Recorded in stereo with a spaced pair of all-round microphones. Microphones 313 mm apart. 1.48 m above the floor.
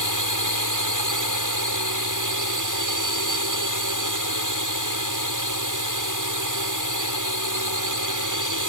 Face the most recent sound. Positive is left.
turn(degrees=-75)  # may be behind; listen again after turning